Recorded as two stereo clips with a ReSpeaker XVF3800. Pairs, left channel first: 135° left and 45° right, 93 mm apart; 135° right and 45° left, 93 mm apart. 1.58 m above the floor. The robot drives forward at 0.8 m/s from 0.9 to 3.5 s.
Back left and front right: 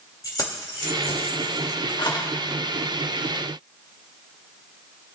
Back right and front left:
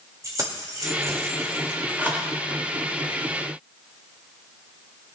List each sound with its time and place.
0.2 s keys jangling: 90° left, 2 m; by 2.3 s 120° left, 2.5 m